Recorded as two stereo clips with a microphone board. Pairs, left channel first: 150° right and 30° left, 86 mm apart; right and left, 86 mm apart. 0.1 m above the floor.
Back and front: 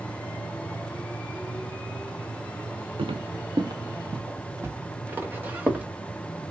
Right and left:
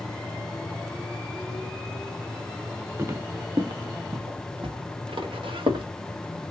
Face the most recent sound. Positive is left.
turn(degrees=105)